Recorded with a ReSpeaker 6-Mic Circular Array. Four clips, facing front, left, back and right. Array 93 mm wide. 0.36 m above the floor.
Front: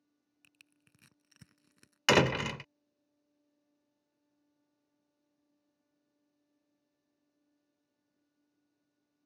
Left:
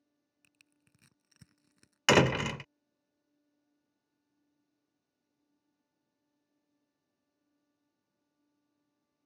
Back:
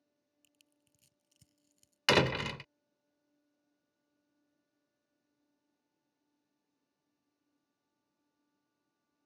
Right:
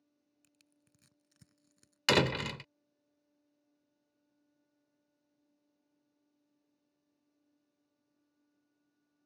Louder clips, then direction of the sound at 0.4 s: Left 2 dB, front 6 dB; 25° left.